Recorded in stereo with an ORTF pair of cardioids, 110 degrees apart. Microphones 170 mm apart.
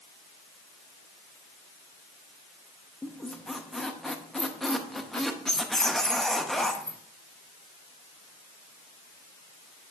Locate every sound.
3.0 s a squeak: 5° left, 0.7 m